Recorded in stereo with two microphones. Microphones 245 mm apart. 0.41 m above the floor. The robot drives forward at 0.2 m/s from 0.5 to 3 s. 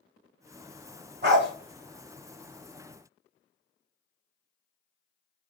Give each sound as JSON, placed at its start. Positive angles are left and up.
{"t": 1.2, "sound": "a dog barking", "side_deg": -50, "distance_m": 0.9}